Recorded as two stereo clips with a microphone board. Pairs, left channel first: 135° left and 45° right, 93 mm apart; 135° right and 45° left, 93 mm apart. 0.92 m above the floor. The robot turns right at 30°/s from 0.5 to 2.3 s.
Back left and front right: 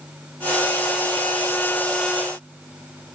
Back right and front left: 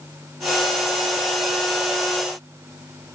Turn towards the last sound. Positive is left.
No sound to turn to.